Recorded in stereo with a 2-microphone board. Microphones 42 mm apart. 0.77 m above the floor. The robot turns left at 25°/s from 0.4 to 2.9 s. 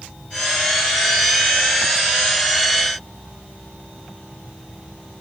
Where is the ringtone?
No ringtone in this recording.